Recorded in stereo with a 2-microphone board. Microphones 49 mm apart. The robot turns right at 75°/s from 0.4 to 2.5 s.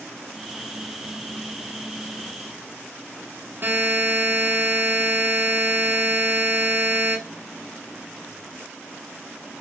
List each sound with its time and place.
3.6 s a buzzer: 45° right (ahead or behind), 0.9 m